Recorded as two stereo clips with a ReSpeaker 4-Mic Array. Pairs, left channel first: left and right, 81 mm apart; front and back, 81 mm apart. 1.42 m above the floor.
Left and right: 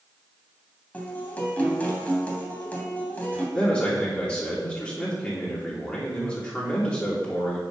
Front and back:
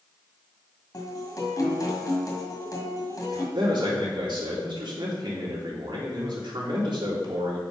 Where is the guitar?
25° left, 2 m.